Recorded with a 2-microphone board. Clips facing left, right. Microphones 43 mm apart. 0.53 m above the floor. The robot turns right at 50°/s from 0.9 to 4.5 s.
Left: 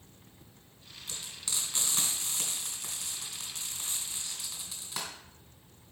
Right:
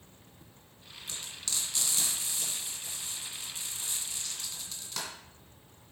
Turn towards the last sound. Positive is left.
turn(degrees=10)  # may be behind; listen again after turning